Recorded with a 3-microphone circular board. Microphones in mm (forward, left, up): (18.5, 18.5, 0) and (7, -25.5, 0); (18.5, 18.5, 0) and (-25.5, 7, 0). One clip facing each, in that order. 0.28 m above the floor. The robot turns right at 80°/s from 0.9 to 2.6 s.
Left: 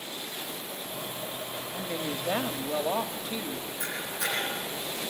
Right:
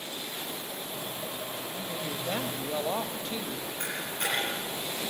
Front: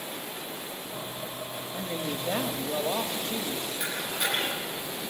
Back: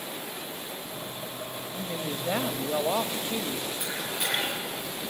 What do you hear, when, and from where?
1.7 s a woman speaking: 85° left, 1.0 m; by 3.7 s 155° left, 1.0 m
3.8 s a camera shutter: 70° right, 8 m